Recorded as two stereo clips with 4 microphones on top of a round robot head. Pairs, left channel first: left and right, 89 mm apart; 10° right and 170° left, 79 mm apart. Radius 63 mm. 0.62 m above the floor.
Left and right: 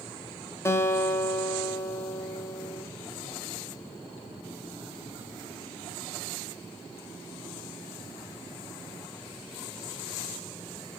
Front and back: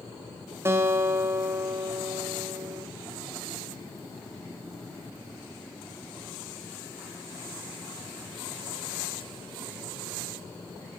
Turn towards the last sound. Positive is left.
turn(degrees=135)